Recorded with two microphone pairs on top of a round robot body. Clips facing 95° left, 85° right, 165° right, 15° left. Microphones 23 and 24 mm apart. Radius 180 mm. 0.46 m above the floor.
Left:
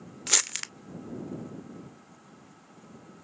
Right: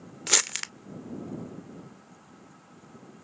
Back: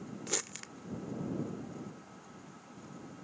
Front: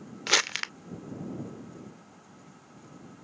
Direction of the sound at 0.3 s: 5° right.